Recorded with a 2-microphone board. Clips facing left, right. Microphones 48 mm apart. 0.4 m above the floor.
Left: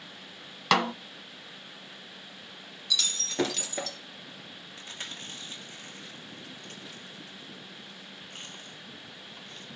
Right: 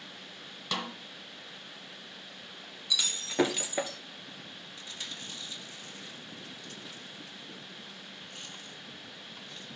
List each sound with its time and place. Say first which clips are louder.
0.7 s a snare drum: left 11 dB; 80° left, 0.5 m
2.9 s breaking glass: even; 15° right (ahead or behind), 1.7 m
4.8 s chewing: left 2 dB; 45° left (ahead or behind), 2 m